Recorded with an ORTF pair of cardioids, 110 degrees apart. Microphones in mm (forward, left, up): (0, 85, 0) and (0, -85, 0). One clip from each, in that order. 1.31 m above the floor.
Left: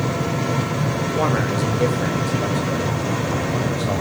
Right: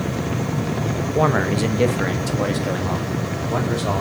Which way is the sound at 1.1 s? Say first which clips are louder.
Right 3 dB; 20° right.